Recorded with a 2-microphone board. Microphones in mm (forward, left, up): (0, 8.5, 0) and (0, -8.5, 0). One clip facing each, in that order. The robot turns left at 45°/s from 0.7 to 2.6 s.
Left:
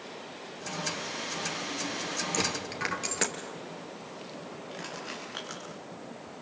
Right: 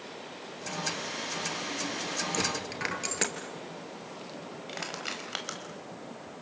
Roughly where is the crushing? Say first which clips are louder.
Right 4 dB; right.